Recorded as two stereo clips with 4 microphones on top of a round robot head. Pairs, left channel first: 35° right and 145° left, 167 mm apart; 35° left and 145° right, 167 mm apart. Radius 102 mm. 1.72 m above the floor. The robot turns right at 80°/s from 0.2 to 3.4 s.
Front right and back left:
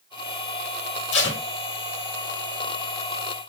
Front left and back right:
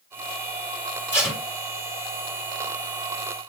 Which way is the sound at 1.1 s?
40° right.